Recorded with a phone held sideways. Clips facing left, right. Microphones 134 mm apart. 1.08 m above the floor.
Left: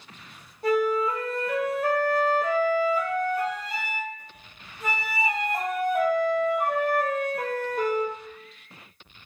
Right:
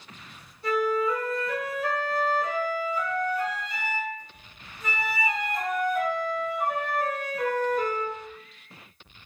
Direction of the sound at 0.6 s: 55° left (ahead or behind).